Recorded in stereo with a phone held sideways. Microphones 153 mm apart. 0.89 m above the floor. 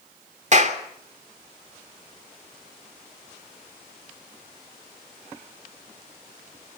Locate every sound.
0.5 s a clap: 50° right (ahead or behind), 2.5 m